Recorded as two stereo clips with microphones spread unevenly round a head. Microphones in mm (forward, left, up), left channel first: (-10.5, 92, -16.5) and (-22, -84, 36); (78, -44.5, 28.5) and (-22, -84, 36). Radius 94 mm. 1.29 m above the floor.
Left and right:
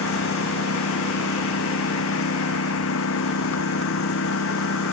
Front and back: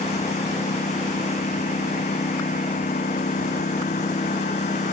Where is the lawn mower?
70° left.